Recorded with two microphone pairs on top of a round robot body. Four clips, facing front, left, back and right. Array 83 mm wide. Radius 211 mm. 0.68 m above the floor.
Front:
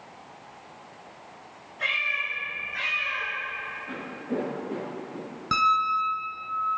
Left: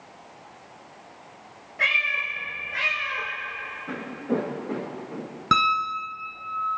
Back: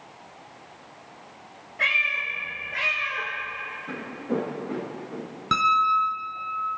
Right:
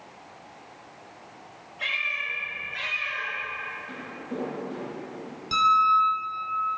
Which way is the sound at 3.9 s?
105° left.